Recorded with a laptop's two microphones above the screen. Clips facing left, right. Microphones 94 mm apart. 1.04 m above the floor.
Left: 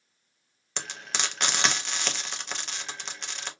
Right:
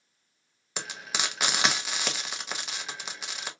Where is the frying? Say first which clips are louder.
Even; 5° right (ahead or behind), 0.6 m.